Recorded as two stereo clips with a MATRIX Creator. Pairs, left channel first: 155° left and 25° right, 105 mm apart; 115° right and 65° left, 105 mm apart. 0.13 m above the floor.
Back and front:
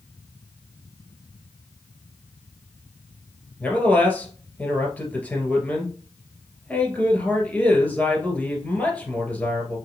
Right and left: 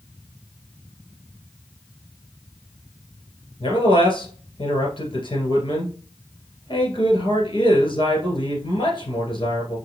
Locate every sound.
3.6 s a man speaking: 130° right, 2.0 m